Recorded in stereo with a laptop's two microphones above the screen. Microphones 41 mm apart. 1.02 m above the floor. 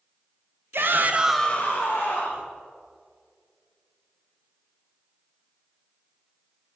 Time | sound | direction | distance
0.7 | a shout | 65° right (ahead or behind) | 1.1 m